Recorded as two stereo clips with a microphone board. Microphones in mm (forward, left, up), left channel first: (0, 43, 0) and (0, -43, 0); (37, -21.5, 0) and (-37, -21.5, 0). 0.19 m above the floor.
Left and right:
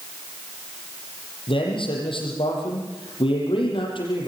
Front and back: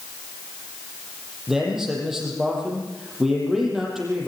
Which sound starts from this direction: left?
A man speaking, at 1.5 s.